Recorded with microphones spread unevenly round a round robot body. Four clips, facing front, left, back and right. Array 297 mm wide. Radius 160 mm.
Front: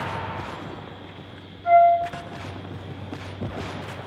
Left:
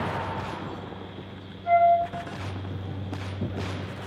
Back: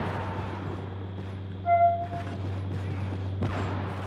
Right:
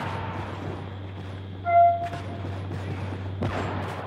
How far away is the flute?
About 5 m.